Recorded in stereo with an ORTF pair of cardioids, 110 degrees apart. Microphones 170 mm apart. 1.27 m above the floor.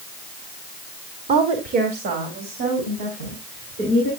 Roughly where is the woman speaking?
Ahead right.